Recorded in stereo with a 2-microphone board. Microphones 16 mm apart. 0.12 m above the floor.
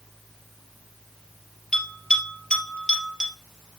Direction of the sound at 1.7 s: 55° left (ahead or behind).